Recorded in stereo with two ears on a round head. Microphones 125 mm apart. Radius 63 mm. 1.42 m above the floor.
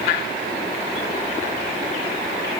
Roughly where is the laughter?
I don't hear laughter.